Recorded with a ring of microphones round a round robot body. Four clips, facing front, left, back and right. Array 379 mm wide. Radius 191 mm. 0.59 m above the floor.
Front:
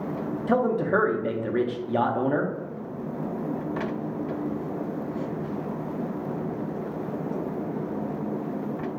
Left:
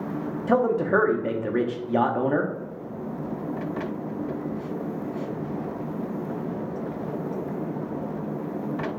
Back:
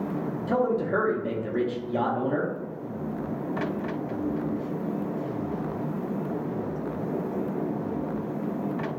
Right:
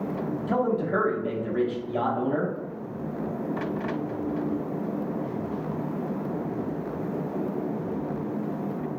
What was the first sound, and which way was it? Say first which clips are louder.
A man speaking: left 5 dB, front 2 dB; 65° left.